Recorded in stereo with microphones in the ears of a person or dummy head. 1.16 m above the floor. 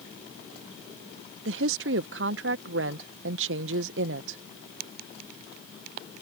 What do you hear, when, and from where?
1.4 s a woman speaking: 55° right (ahead or behind)